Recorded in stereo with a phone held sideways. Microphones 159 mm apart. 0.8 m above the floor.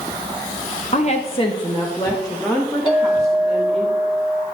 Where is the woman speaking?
50° left (ahead or behind), 0.7 m; by 3.9 s centre (ahead or behind), 1.9 m.